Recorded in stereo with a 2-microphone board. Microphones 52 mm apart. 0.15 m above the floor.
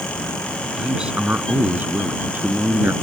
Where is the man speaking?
15° right (ahead or behind); by 2.9 s 40° right (ahead or behind).